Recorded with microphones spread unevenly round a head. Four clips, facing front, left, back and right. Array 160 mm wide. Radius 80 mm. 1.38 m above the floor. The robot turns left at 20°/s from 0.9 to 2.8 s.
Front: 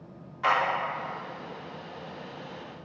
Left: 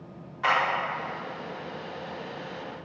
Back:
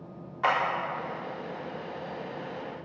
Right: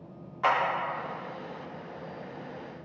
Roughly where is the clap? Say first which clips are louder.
Even, front 1 dB; behind.